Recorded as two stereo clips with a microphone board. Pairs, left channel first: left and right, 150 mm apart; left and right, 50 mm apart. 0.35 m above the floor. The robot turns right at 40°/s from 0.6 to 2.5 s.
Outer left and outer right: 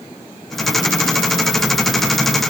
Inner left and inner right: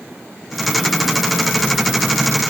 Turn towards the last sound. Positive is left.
No sound to turn to.